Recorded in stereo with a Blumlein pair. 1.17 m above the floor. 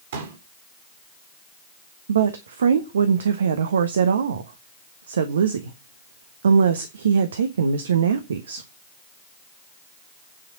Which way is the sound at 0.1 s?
60° right.